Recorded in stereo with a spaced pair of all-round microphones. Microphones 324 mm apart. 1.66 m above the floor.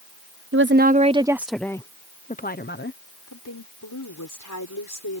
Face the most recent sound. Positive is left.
turn(degrees=70)  # may be behind; listen again after turning